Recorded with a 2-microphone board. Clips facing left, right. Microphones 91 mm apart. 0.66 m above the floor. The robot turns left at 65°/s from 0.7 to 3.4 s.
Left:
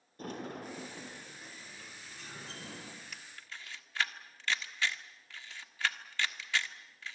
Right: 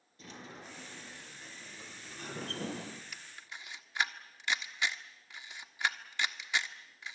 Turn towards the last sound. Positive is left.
turn(degrees=-15)  # may be behind; listen again after turning